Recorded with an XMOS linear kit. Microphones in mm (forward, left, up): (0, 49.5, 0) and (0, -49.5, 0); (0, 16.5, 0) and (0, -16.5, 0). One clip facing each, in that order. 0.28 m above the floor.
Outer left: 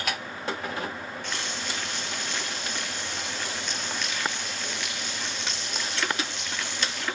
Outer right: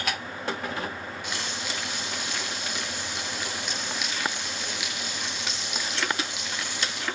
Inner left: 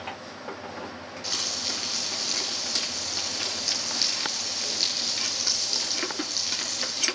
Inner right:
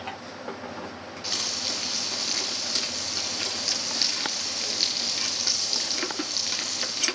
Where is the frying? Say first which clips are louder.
Even, inner right 1 dB; 5° right (ahead or behind), 8 m.